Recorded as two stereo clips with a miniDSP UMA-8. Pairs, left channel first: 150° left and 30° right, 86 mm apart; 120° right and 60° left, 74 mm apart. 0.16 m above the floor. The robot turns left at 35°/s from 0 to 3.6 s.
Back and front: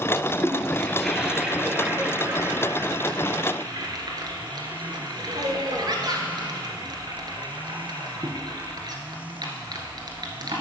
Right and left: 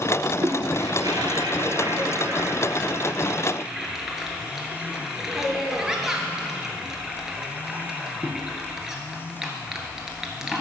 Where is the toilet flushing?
85° left, 1.3 m; by 10.6 s 25° right, 1.3 m.